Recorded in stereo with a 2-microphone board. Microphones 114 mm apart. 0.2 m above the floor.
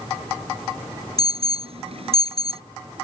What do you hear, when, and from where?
1.2 s an alarm: 60° right (ahead or behind)